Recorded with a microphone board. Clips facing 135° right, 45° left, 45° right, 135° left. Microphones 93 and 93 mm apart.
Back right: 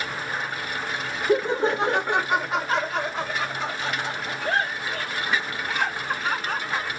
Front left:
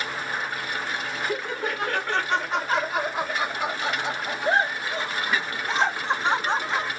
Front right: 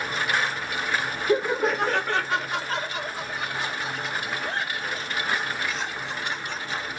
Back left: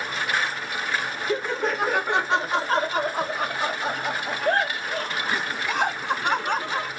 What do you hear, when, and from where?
1.3 s laughter: 110° right; by 6.9 s 110° left